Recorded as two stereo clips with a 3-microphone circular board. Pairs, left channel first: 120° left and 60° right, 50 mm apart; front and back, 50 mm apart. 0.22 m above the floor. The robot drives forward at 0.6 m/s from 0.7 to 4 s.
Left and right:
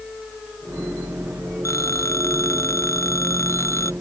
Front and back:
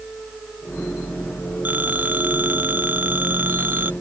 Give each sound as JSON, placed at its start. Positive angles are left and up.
{"t": 1.6, "sound": "a phone ringing", "azimuth_deg": 125}